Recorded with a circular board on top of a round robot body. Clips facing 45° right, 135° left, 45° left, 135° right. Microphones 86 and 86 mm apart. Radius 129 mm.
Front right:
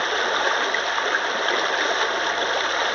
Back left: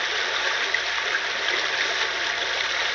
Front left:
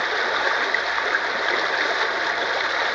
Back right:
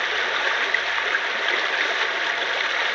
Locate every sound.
0.0 s running water: 15° right, 0.8 m